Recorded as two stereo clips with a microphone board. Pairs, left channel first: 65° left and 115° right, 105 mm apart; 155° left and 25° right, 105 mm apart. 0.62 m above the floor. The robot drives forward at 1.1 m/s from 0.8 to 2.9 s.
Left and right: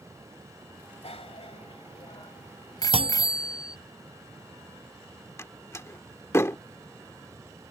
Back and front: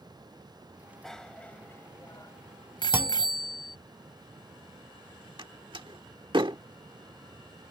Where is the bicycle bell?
70° left; by 3.8 s 115° left.